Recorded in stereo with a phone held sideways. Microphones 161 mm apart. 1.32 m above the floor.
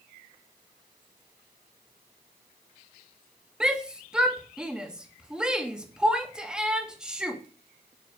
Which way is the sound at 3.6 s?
5° right (ahead or behind).